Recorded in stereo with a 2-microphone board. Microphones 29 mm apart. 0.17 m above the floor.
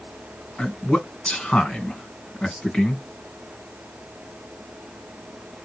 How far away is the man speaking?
About 1.9 m.